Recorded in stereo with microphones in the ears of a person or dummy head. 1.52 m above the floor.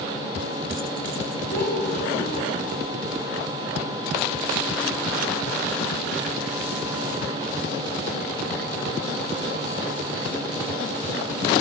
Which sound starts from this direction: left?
A child speaking, at 1.5 s.